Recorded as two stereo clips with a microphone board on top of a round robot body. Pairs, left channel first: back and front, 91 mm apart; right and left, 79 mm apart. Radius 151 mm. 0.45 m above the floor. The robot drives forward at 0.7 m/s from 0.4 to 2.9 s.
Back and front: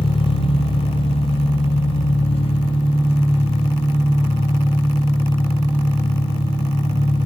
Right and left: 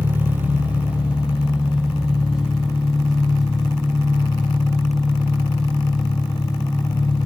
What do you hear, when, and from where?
0.0 s an engine running: 160° left, 0.9 m; by 7.3 s 175° left, 2.5 m